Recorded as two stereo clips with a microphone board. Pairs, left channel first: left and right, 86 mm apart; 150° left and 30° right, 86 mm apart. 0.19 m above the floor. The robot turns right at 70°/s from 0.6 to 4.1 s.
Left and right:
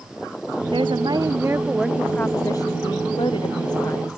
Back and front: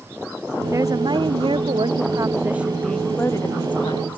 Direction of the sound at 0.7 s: 85° right.